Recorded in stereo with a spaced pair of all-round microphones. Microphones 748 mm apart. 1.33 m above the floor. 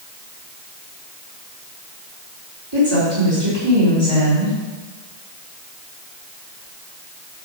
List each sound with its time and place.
2.7 s a woman speaking: 35° right (ahead or behind), 4 m